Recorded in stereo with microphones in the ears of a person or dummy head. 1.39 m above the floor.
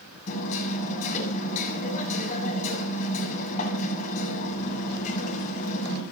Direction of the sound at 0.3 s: 45° left (ahead or behind).